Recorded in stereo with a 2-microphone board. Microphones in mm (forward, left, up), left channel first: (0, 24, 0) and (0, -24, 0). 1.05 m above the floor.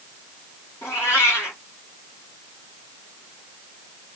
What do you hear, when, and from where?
0.8 s a cat meowing: 70° left (ahead or behind), 1.5 m